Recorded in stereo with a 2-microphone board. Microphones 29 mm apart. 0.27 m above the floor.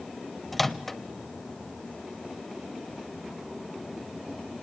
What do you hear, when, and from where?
0.5 s a microwave: 10° left (ahead or behind), 0.7 m